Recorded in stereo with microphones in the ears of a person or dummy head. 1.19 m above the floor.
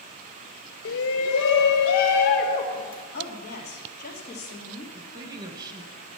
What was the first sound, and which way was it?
A shout, 65° left (ahead or behind).